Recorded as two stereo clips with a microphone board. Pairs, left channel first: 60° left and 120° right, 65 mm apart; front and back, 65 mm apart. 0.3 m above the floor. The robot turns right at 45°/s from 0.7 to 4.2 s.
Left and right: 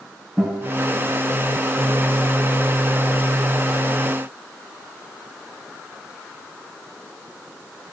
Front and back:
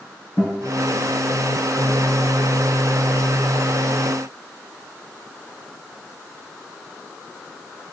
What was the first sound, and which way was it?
A guitar, 35° right.